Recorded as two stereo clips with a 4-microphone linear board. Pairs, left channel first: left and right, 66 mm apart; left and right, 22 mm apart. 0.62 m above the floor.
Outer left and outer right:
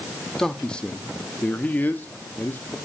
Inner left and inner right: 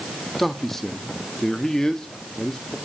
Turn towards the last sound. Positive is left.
turn(degrees=30)  # may be behind; listen again after turning